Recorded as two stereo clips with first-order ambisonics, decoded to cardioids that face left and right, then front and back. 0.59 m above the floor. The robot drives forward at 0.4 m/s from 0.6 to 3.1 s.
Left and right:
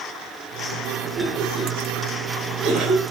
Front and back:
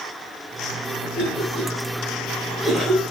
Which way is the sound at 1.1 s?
55° right.